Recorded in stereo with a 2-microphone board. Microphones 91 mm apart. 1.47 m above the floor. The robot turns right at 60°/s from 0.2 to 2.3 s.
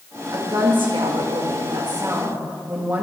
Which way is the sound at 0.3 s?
145° right.